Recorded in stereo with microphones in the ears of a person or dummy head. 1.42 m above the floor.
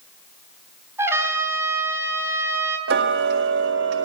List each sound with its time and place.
1.0 s a trumpet: 20° right (ahead or behind), 4.5 m
2.9 s ticking: 50° right (ahead or behind), 1.7 m